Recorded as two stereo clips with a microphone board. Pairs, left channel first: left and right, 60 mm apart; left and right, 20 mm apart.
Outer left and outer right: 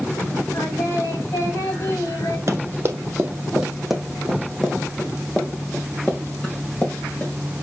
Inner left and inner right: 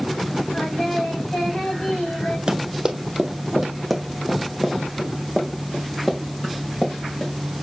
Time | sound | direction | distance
0.5 | singing | 65° left (ahead or behind) | 3.5 m
2.5 | running footsteps | 50° right (ahead or behind) | 1.5 m